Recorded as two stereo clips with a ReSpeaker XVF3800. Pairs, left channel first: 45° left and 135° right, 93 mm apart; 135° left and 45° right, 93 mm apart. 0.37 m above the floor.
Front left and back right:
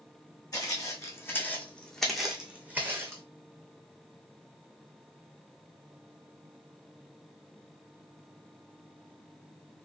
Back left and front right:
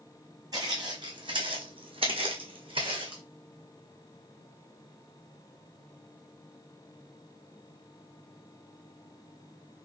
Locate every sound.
0.5 s footsteps: straight ahead, 1.3 m; by 3.2 s 75° right, 1.3 m